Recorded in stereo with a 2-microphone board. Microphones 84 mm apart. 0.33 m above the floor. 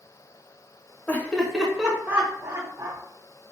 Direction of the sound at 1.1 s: 25° left (ahead or behind).